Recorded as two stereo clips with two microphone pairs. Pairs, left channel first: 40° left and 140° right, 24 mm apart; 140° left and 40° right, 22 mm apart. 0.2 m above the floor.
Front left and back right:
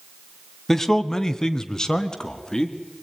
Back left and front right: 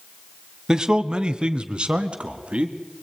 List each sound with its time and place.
0.7 s a man speaking: 20° right, 1.3 m; by 2.8 s 15° right, 2.5 m